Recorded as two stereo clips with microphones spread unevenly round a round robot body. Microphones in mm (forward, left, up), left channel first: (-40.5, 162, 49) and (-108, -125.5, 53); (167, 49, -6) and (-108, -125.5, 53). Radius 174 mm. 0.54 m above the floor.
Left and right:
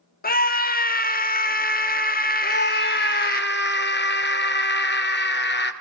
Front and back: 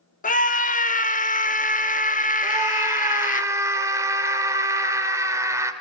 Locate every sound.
0.2 s a scream: 50° left, 1.5 m
2.4 s a scream: 125° left, 2.5 m